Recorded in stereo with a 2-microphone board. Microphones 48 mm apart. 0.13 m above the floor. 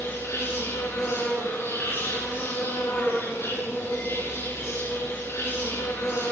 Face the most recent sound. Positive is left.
turn(degrees=75)  # may be behind; listen again after turning